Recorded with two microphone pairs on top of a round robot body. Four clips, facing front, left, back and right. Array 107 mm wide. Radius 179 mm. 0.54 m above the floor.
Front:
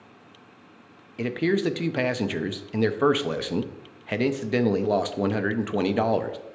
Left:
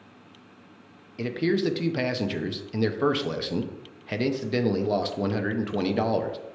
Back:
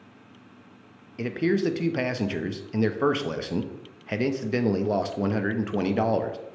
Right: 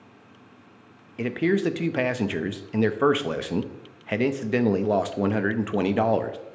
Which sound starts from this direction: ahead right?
A man speaking, at 1.2 s.